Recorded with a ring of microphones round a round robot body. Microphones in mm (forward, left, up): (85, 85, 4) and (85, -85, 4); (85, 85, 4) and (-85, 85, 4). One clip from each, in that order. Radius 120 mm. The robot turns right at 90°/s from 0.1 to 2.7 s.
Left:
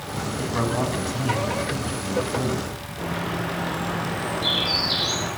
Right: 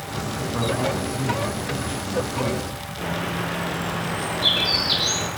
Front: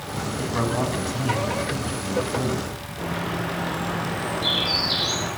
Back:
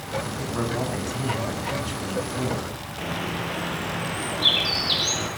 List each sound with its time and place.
0.4 s a man speaking: 30° left, 6 m; by 2.7 s 125° right, 6 m
3.0 s a bird: 150° right, 6.5 m